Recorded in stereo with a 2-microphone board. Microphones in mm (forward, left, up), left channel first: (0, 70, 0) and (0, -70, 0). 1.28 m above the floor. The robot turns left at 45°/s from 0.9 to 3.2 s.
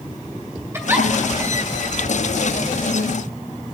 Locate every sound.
0.7 s a giggle: 20° right (ahead or behind), 3 m; by 1.1 s 10° right (ahead or behind), 3 m